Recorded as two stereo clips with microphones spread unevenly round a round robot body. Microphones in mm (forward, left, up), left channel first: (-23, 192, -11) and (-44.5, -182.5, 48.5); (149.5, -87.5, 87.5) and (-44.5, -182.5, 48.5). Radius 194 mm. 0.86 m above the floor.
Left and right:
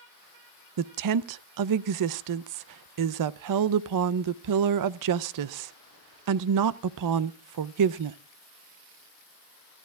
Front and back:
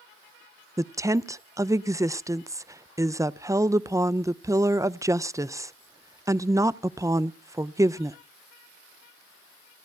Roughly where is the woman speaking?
Right.